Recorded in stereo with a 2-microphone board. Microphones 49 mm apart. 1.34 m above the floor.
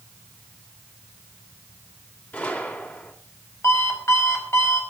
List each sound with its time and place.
2.3 s a gunshot: 35° left (ahead or behind), 4 m
3.6 s an alarm clock: 65° left (ahead or behind), 5 m